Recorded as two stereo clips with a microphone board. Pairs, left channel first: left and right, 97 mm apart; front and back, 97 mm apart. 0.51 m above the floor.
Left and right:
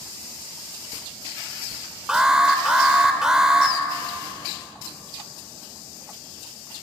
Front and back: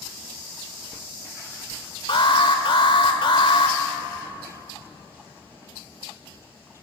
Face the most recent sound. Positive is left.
turn(degrees=-10)